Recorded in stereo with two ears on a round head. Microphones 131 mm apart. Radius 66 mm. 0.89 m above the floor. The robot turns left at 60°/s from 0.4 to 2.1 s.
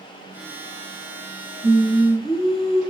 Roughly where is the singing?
Right.